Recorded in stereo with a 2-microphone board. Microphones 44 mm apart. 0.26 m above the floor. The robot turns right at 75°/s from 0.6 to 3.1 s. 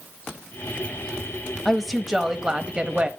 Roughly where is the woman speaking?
Centre.